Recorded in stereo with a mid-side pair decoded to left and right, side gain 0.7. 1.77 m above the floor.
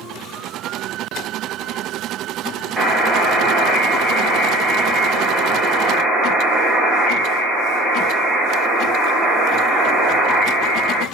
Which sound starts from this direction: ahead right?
A buzzer, at 2.8 s.